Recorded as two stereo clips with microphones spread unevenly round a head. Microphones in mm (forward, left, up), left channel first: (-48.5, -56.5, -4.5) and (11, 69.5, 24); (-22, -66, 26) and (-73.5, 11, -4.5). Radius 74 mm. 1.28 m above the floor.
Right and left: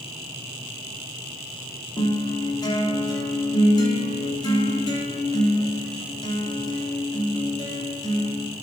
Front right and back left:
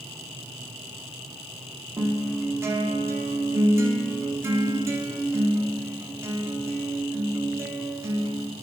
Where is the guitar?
175° right, 3.5 m.